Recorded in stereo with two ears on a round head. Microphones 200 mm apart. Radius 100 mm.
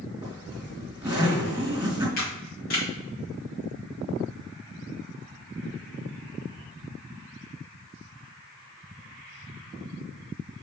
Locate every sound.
0.2 s a zipper: 10° right (ahead or behind), 3 m
2.2 s a camera shutter: 45° left (ahead or behind), 2.5 m